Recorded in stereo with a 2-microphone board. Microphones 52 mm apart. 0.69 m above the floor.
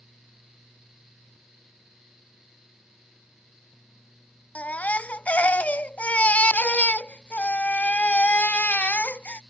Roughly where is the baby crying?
Left.